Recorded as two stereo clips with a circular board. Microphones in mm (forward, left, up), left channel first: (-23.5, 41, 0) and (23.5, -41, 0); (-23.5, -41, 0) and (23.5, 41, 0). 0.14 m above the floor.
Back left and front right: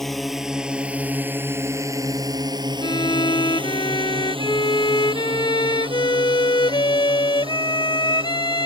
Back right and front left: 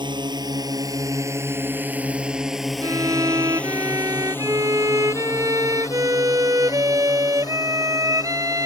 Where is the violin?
105° left.